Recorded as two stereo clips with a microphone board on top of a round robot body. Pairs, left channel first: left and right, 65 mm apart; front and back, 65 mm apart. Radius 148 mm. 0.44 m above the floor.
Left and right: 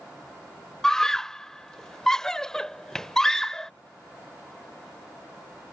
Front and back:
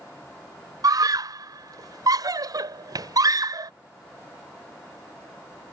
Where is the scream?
170° left.